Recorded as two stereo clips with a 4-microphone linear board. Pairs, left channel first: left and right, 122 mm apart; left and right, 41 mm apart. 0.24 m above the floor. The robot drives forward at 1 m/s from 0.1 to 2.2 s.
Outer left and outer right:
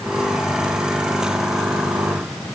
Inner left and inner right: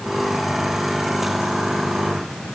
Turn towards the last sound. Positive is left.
No sound to turn to.